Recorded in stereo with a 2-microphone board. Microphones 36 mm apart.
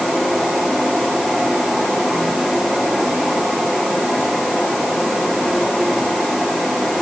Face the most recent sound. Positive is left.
No sound to turn to.